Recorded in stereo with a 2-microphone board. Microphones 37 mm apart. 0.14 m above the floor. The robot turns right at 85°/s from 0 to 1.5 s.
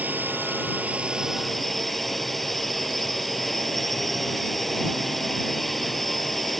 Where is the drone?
125° right; by 6.6 s 5° left.